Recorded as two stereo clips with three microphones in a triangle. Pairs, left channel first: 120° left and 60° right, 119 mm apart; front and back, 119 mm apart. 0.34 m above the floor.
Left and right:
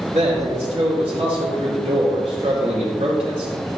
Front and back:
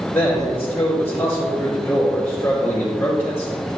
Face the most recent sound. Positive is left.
turn(degrees=-80)